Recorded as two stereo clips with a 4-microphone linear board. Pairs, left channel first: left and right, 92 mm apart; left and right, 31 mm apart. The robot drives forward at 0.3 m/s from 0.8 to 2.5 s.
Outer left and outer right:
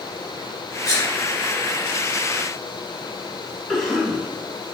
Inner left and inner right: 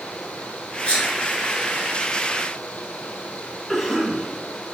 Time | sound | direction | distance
0.8 | a sneeze | 40° left (ahead or behind) | 1.3 m
3.7 | a cough | 10° left (ahead or behind) | 1.6 m